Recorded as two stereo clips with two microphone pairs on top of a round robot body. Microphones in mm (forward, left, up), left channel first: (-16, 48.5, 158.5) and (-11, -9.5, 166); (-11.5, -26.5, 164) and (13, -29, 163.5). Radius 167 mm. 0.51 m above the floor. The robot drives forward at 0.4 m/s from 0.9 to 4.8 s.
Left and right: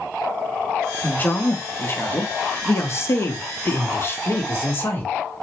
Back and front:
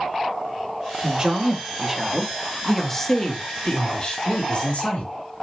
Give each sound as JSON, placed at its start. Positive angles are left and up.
{"t": 1.0, "sound": "a man speaking", "azimuth_deg": 45, "distance_m": 1.2}